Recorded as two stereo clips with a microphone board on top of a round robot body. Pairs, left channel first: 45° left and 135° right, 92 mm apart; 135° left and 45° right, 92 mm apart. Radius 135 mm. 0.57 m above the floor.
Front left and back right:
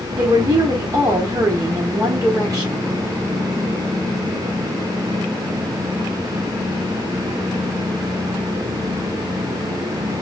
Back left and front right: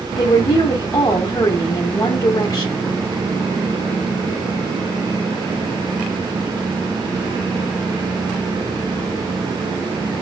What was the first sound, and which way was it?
A woman speaking, straight behind.